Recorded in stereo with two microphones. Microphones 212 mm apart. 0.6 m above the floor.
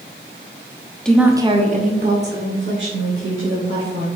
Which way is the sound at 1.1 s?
5° left (ahead or behind).